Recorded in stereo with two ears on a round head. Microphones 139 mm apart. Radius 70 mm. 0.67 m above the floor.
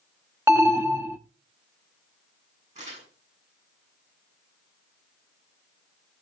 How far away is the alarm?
About 0.7 m.